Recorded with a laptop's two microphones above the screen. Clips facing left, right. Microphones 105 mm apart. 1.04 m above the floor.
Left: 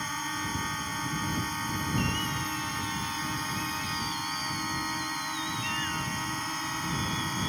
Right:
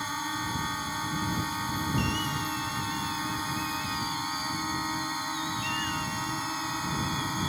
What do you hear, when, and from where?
0.0 s a drone: 10° right (ahead or behind)